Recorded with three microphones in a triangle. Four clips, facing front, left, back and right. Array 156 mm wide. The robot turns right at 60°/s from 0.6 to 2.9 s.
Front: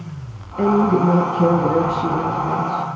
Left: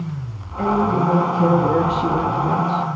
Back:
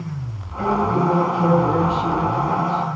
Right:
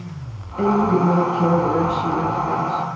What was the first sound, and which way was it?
A woman speaking, 30° right.